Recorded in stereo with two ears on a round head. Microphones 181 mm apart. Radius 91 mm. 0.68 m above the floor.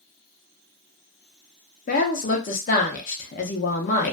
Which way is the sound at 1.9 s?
40° left (ahead or behind).